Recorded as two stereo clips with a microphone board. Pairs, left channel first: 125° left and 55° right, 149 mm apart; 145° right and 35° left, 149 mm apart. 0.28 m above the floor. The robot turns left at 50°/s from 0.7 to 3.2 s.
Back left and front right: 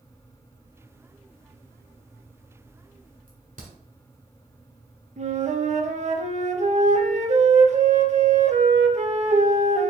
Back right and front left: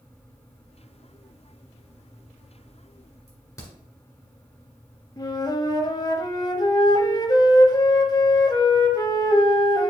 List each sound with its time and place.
3.3 s a crack: 80° right, 1.6 m
5.2 s a flute: 85° right, 0.6 m